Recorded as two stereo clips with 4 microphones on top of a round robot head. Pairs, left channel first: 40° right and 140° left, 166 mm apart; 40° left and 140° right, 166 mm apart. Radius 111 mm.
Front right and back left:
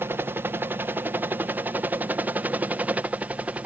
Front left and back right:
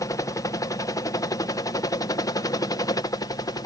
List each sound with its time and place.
0.0 s a helicopter: 80° left; by 3.7 s 70° left